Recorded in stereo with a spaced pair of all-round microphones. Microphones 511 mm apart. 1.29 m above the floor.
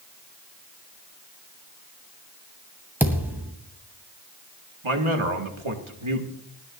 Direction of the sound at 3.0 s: 5° right (ahead or behind).